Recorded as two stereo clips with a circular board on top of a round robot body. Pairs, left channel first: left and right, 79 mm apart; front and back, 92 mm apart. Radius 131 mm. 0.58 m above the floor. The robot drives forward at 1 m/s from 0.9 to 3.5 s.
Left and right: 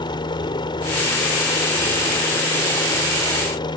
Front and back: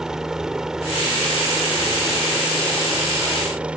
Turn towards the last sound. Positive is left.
turn(degrees=100)